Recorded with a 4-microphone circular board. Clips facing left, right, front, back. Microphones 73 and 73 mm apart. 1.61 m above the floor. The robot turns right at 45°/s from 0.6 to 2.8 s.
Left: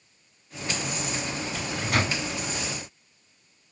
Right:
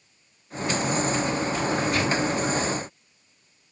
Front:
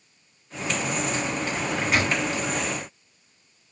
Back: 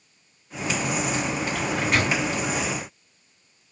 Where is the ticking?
No ticking in this recording.